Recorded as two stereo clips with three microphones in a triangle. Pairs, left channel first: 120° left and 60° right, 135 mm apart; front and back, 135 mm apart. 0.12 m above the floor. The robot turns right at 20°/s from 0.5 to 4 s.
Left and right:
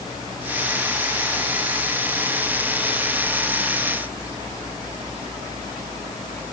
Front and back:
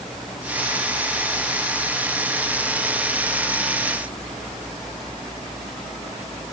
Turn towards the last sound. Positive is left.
No sound to turn to.